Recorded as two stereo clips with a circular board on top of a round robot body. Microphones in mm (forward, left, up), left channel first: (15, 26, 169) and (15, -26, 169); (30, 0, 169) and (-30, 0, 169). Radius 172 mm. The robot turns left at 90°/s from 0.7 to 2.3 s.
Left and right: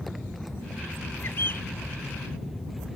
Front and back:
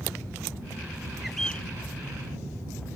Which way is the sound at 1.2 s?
95° left.